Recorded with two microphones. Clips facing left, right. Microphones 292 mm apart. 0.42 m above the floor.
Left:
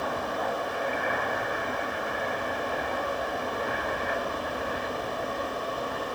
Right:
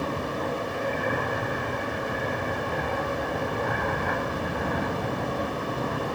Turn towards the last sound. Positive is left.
turn(degrees=-65)  # may be behind; listen again after turning